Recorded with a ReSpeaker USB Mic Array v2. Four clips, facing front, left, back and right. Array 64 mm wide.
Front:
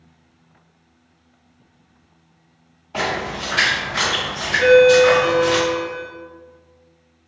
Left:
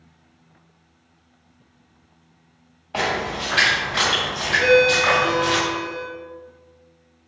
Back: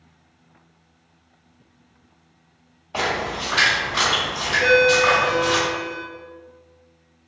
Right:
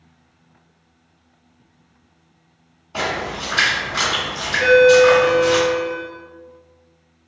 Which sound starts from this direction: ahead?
A ringtone, at 4.6 s.